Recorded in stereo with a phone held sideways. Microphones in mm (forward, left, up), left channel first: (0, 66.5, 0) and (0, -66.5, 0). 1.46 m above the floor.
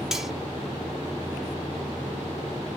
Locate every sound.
0.1 s cutlery clinking: 5° right (ahead or behind), 0.5 m